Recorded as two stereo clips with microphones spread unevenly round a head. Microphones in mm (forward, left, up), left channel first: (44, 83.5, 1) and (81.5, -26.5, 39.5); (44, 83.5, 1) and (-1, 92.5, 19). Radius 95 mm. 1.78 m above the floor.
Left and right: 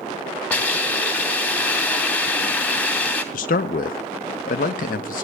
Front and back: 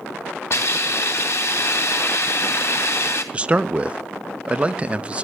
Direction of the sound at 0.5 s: 25° left.